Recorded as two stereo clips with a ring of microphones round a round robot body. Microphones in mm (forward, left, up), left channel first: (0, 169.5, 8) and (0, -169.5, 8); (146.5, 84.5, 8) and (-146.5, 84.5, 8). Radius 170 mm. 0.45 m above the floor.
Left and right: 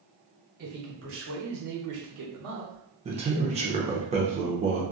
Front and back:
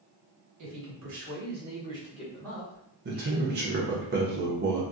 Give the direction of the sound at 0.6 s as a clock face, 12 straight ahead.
5 o'clock.